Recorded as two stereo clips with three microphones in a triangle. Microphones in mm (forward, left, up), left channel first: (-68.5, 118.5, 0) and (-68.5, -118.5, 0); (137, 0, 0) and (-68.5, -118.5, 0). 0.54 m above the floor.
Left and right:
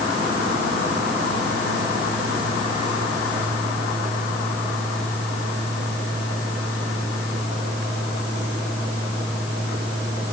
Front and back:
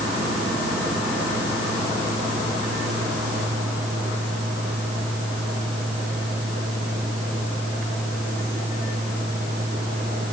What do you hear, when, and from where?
Only background noise.